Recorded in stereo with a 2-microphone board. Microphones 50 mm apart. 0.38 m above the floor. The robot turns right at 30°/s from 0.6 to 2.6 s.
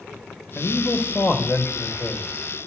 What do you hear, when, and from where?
0.6 s a man speaking: 85° left, 1.1 m; by 2.4 s 140° left, 1.1 m